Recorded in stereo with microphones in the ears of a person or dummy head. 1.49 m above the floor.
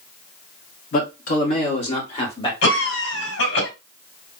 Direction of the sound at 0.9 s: 50° left (ahead or behind).